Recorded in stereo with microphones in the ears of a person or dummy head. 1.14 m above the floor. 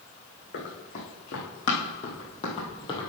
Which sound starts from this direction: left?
Running footsteps, at 0.5 s.